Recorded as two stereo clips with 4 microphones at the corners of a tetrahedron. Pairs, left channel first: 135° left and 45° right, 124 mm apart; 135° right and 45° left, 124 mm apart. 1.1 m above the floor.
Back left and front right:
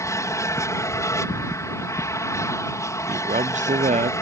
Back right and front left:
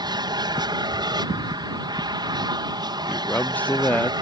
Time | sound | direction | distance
0.0 | an aircraft | 80° left | ?
3.1 | a man speaking | 60° right | ?